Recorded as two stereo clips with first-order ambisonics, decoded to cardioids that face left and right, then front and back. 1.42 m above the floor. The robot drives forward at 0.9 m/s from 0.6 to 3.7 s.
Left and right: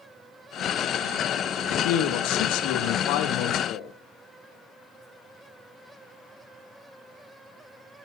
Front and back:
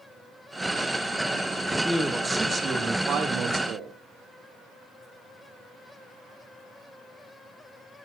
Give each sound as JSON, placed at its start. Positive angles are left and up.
{"t": 1.7, "sound": "a man speaking", "azimuth_deg": 90, "distance_m": 2.5}